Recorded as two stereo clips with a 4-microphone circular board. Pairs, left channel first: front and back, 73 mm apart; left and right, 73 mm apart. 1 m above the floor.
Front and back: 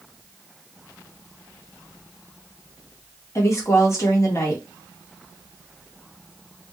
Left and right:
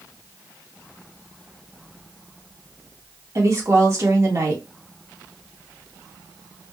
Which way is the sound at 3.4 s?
45° right.